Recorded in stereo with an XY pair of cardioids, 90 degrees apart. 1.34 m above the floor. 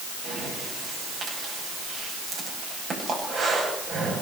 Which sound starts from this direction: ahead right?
Breathing, at 0.2 s.